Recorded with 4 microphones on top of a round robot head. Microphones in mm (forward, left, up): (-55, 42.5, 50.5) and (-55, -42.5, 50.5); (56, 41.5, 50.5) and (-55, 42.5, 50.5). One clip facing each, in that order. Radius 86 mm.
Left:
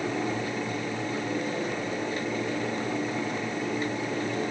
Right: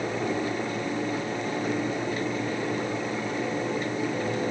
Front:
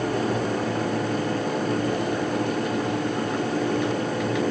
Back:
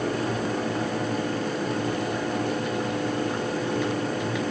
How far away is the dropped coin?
No dropped coin in this recording.